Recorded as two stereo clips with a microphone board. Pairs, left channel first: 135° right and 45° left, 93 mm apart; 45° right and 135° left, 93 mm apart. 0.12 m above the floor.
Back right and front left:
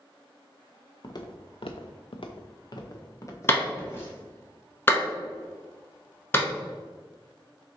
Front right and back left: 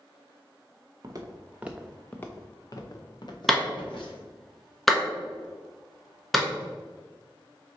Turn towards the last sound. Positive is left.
turn(degrees=-135)